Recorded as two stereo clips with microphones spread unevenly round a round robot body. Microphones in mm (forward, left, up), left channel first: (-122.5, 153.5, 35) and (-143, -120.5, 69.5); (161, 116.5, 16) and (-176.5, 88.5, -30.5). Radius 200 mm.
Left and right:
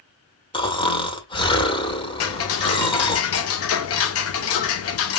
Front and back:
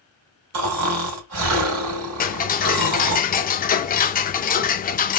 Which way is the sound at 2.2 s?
75° left.